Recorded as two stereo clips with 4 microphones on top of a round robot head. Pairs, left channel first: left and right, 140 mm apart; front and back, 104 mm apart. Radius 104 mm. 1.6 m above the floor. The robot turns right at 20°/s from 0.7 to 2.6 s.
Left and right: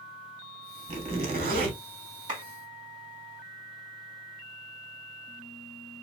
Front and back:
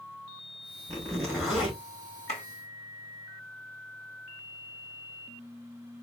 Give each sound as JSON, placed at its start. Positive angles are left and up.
{"t": 0.9, "sound": "a zipper", "azimuth_deg": -115, "distance_m": 2.0}
{"t": 2.3, "sound": "a clap", "azimuth_deg": -30, "distance_m": 3.0}